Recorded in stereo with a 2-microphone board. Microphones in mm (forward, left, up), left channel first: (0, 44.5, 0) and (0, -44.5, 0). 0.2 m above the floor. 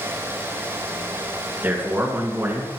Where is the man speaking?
20° right (ahead or behind), 2.5 m; by 2.7 s 25° right (ahead or behind), 1.9 m.